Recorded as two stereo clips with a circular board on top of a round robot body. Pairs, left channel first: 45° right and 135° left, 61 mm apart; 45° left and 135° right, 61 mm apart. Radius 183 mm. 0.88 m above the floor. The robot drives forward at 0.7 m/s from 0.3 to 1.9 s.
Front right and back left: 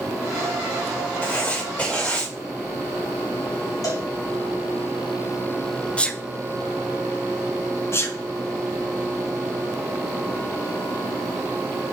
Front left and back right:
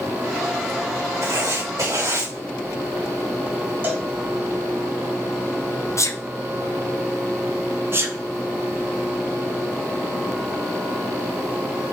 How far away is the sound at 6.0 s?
About 1.2 m.